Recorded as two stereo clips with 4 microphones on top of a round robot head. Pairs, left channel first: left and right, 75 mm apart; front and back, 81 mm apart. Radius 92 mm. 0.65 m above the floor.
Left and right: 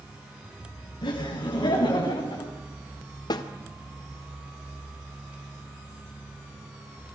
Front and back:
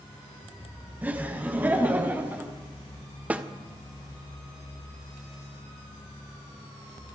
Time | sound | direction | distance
1.0 | laughter | 110° left | 4.5 m
3.3 | a snare drum | 110° left | 1.8 m